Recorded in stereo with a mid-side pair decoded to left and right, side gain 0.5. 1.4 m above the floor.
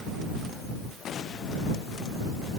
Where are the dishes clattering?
I don't hear dishes clattering.